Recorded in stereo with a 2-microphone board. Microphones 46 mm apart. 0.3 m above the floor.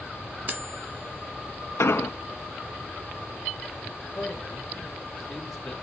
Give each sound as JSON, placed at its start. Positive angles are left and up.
{"t": 0.5, "sound": "cutlery clinking", "side_deg": -40, "distance_m": 1.6}
{"t": 1.8, "sound": "an explosion", "side_deg": 85, "distance_m": 0.5}
{"t": 4.2, "sound": "a man speaking", "side_deg": 10, "distance_m": 4.0}